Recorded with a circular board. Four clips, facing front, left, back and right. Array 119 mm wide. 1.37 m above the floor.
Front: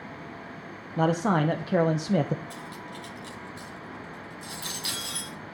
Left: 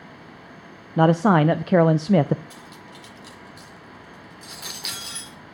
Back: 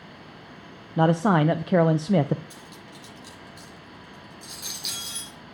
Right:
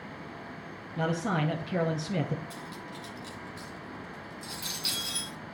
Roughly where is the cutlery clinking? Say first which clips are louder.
Right 1 dB, front 5 dB; left.